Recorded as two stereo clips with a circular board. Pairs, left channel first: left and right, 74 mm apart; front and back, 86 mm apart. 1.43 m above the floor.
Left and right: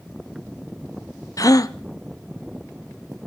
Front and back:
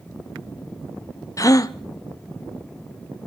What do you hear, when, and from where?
1.4 s a gasp: 50° left, 0.6 m